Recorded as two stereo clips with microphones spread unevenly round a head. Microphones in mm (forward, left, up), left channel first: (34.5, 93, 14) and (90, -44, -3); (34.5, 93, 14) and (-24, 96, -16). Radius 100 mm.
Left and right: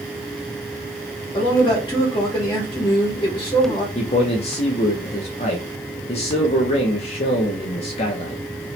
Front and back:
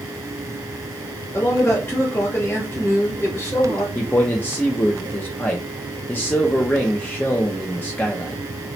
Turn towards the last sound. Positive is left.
turn(degrees=80)